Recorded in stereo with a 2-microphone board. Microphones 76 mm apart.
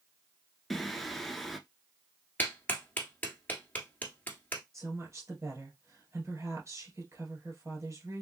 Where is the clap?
25° left (ahead or behind), 1.2 m.